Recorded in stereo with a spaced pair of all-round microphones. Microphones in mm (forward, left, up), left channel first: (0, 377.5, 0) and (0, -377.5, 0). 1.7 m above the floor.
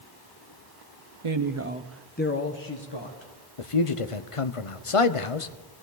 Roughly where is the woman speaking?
Right.